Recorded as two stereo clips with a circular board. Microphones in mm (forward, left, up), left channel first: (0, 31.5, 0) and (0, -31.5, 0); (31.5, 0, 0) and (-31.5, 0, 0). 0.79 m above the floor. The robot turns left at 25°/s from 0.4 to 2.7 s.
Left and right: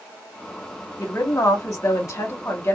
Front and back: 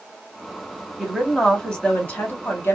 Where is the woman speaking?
90° left, 2.0 m; by 2.8 s 50° left, 2.0 m.